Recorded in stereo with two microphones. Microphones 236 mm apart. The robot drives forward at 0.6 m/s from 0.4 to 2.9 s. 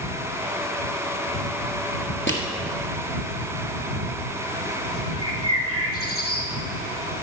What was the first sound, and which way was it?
Crushing, 55° left (ahead or behind).